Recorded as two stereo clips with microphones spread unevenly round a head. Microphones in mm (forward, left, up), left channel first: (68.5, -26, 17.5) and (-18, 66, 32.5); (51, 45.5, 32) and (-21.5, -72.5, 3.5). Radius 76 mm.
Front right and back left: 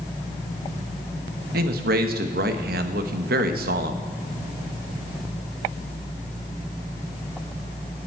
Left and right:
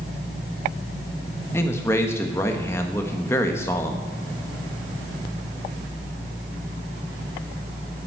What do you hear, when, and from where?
1.5 s a man speaking: 135° left, 1.3 m